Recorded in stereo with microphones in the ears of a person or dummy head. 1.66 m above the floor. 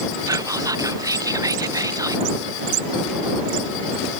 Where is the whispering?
15° right (ahead or behind).